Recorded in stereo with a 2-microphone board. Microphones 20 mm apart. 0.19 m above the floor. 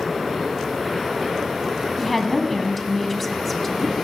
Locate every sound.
2.0 s a woman speaking: 5° left (ahead or behind), 1.7 m